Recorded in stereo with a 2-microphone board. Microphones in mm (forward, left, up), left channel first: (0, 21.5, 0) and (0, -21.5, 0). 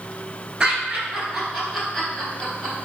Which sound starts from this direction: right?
Laughter, at 0.6 s.